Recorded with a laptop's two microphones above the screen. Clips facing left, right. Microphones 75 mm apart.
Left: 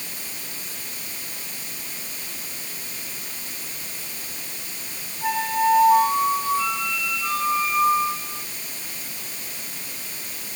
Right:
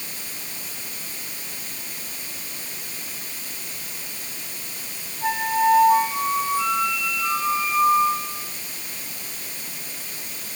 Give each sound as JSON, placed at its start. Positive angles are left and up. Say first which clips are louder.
{"t": 5.2, "sound": "a flute", "louder": "right 1 dB", "side_deg": -10, "distance_m": 4.5}